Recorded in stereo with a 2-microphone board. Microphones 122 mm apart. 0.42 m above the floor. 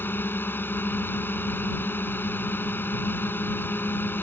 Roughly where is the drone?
Centre.